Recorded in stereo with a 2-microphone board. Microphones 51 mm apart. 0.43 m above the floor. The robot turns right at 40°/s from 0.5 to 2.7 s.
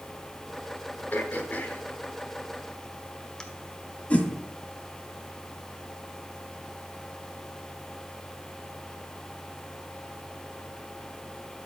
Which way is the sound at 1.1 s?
35° left (ahead or behind).